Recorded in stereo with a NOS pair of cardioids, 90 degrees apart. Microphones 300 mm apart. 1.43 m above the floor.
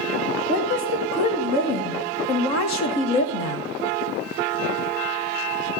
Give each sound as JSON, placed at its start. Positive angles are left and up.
{"t": 0.5, "sound": "a woman speaking", "azimuth_deg": 60, "distance_m": 3.0}